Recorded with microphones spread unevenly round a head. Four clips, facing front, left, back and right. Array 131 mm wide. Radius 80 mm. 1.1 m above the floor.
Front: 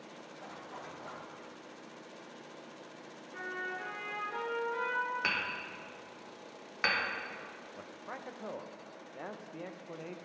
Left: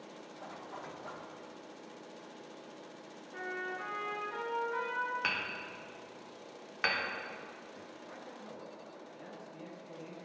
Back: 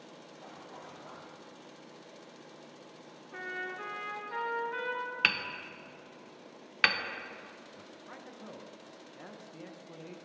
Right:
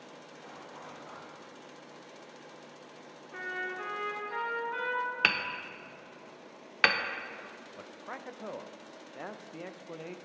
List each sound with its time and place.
0.4 s a zipper: 40° left, 1.2 m
3.3 s a trumpet: 175° right, 1.1 m
5.2 s hammering: 110° right, 0.6 m
7.8 s a man speaking: 60° right, 0.5 m